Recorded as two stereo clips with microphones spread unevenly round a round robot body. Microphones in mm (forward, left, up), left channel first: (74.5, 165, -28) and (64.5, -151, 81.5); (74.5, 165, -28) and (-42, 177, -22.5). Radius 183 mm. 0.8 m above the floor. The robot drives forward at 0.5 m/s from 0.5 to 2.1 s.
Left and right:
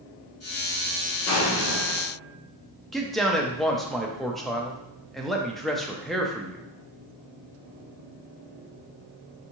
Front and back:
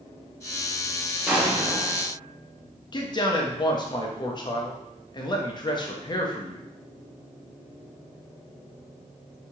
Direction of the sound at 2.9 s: 20° left.